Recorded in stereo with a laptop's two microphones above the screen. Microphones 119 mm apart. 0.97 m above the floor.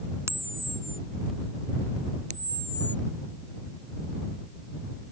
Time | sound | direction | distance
0.3 | a camera shutter | 20° right (ahead or behind) | ?
2.3 | a camera shutter | 85° right | ?